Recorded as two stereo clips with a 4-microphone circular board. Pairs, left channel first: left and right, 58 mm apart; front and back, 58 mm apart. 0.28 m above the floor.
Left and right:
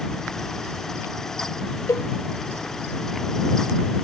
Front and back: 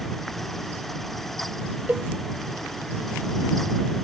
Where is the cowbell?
120° left.